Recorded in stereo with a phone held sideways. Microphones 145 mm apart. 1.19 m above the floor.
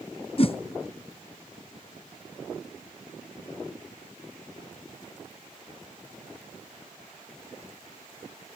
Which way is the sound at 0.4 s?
40° left (ahead or behind).